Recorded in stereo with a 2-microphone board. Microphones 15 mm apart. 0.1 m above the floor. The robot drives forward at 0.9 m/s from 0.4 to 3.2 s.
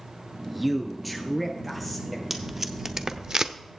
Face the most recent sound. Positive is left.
turn(degrees=-40)  # may be behind; listen again after turning